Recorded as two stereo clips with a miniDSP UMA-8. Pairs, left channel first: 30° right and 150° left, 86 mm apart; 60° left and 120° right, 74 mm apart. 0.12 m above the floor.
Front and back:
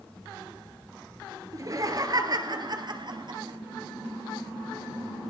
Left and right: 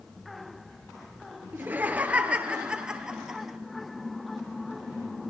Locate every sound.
1.5 s laughter: 175° right, 1.7 m; by 3.6 s 155° left, 2.5 m